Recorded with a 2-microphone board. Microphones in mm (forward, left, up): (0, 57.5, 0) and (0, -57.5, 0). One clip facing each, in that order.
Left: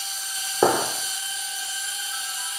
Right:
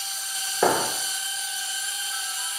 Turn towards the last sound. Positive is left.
turn(degrees=25)  # may be behind; listen again after turning